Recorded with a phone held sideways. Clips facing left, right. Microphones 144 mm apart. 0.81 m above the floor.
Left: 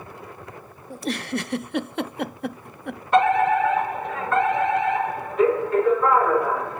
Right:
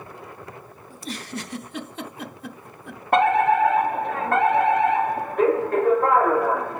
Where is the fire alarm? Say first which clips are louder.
Even; 60° right (ahead or behind), 3 m.